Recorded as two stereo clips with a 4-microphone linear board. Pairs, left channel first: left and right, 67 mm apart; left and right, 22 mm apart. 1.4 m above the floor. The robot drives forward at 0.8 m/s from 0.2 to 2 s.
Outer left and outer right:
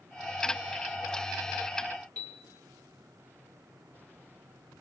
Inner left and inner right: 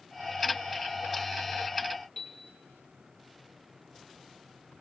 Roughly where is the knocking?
I don't hear knocking.